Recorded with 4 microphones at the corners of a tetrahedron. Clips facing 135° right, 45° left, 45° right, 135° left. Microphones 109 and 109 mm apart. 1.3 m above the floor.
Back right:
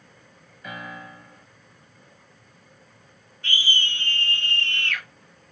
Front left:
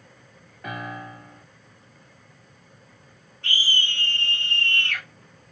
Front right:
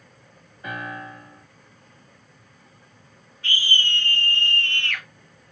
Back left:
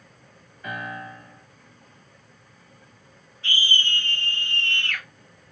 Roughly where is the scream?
Ahead.